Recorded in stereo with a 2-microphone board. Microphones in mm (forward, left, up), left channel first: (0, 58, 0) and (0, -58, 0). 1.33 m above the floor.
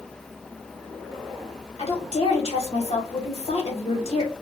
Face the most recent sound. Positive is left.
turn(degrees=60)  # may be behind; listen again after turning